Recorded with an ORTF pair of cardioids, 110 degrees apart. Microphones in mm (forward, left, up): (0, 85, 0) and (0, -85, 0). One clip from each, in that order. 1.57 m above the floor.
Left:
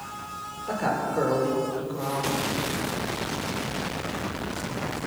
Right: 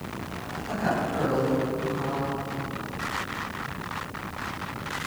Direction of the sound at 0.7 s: 50° left.